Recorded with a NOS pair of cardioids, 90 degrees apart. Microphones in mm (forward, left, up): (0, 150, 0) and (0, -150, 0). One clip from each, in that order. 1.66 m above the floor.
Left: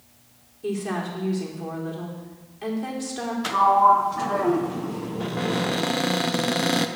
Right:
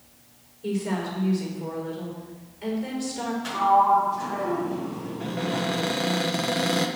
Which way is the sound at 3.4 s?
65° left.